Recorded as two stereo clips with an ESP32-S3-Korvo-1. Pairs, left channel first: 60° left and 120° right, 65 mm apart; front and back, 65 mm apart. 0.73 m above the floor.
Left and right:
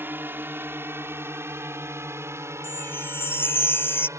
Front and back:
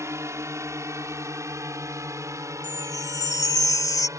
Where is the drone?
165° right; by 4.2 s 155° right.